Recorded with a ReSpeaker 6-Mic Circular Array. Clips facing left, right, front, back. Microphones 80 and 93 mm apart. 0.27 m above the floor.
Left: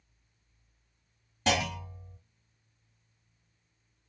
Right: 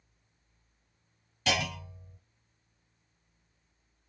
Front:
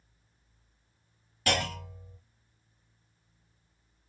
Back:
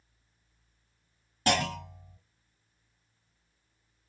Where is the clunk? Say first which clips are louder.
Left 2 dB, back 2 dB; 135° left, 1.7 m.